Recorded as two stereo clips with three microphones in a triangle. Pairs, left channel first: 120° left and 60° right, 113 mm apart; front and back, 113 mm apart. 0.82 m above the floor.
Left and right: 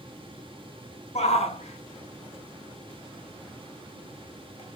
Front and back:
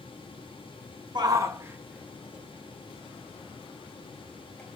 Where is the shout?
135° left, 1.3 m; by 4.7 s 85° left, 6.5 m.